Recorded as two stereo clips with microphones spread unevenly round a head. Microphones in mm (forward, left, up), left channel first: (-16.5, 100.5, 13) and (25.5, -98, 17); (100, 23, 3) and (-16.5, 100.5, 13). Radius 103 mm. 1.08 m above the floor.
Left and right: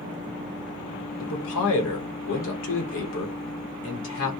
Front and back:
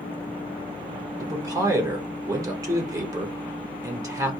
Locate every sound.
1.2 s a man speaking: 80° left, 0.9 m